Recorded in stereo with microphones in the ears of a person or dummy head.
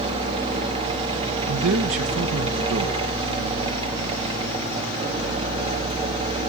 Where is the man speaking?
80° right, 1.5 m.